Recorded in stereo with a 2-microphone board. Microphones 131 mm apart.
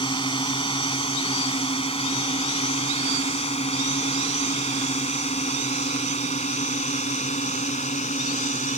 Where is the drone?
40° left (ahead or behind); by 8.8 s 60° left (ahead or behind).